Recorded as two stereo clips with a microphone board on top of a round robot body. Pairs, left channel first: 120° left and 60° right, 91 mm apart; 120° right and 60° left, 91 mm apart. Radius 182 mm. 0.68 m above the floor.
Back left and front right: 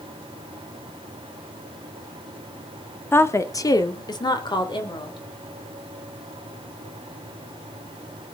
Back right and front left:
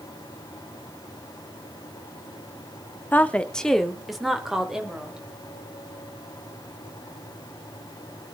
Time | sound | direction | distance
3.1 | a woman speaking | 175° left | 1.5 m